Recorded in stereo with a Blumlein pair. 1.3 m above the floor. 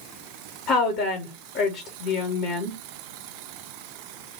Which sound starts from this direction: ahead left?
A woman speaking, at 0.7 s.